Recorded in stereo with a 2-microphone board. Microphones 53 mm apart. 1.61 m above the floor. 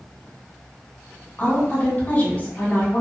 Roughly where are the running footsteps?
I don't hear running footsteps.